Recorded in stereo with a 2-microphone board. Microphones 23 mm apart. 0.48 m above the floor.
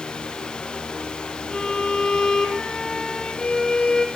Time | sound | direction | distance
1.5 | a violin | 40° left (ahead or behind) | 3.5 m